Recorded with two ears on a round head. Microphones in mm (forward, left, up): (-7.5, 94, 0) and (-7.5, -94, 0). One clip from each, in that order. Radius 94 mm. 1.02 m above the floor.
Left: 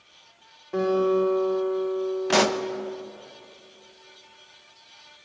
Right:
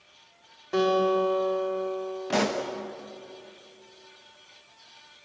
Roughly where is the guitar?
Right.